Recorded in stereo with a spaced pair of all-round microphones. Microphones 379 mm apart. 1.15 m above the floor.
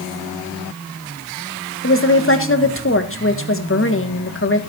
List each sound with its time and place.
1.8 s a woman speaking: 35° left (ahead or behind), 1.5 m